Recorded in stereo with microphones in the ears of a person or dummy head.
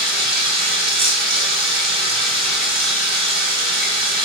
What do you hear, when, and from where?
0.0 s running water: centre (ahead or behind), 4.5 m